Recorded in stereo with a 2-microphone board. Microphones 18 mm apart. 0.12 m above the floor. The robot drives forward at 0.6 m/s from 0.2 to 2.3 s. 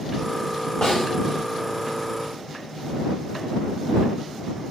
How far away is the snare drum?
About 4 m.